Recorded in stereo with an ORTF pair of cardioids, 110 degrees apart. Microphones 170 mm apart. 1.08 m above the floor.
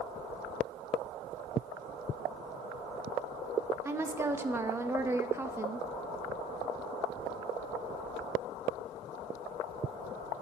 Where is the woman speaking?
15° right, 1.0 m.